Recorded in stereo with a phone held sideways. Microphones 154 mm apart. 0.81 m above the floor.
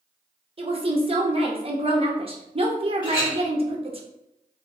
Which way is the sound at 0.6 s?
40° right (ahead or behind).